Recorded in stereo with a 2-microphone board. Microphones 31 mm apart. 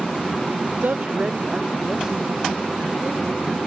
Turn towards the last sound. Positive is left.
turn(degrees=-20)  # may be behind; listen again after turning